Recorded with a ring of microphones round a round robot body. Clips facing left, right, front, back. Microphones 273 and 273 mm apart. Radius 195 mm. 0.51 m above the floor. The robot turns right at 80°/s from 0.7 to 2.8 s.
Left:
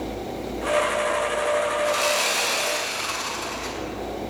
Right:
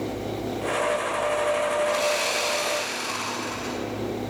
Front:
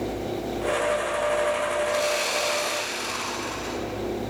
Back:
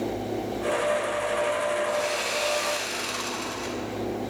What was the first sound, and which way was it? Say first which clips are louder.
Sawing: even, front 2 dB; 65° left.